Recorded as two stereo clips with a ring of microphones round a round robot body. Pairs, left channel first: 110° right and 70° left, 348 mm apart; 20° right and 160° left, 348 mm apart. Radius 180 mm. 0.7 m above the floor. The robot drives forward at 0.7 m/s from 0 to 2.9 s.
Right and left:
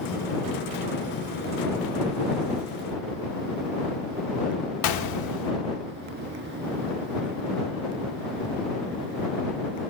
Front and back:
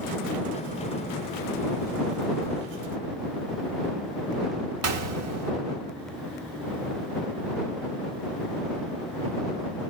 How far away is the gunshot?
About 1.0 m.